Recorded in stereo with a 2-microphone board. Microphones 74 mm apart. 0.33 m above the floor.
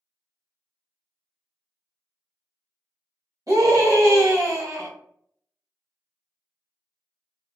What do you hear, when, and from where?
3.5 s a scream: 55° right (ahead or behind), 1.7 m